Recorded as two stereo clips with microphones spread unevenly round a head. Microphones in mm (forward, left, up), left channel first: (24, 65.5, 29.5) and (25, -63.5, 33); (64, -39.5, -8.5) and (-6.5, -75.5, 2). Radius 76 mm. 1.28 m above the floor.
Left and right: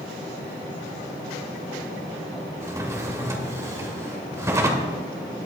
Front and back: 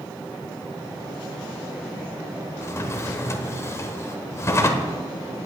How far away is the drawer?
About 1.5 m.